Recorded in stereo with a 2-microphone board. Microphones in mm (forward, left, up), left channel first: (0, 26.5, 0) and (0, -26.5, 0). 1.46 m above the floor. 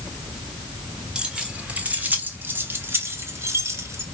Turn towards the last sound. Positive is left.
turn(degrees=-65)  # may be behind; listen again after turning